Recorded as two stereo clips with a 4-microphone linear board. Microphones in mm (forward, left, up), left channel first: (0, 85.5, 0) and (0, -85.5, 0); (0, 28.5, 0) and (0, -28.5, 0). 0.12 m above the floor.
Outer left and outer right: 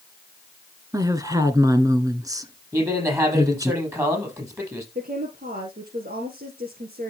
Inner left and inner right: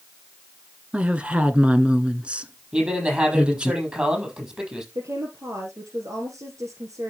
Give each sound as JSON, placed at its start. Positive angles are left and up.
{"t": 0.9, "sound": "a woman speaking", "side_deg": -20, "distance_m": 1.2}
{"t": 2.7, "sound": "a man speaking", "side_deg": -15, "distance_m": 5.5}
{"t": 5.0, "sound": "a woman speaking", "side_deg": -60, "distance_m": 2.0}